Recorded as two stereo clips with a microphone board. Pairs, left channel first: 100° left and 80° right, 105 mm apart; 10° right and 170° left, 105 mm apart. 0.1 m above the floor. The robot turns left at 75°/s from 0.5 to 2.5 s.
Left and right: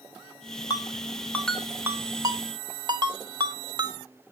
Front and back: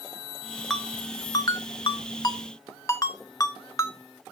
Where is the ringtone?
75° left, 0.7 m; by 4.3 s 60° right, 0.7 m.